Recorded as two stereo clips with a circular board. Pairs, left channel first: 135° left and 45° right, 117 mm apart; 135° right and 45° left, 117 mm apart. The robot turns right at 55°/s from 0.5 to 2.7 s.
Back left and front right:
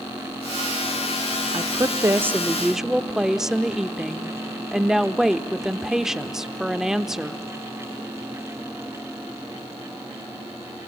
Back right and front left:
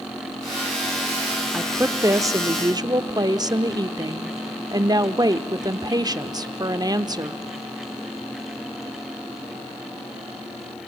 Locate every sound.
1.5 s a woman speaking: 25° right, 0.9 m; by 7.5 s 40° left, 0.9 m